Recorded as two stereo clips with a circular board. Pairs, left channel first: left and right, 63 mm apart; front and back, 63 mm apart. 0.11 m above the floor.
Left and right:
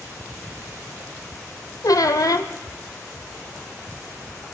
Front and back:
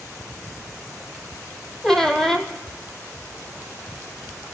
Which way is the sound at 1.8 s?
80° left.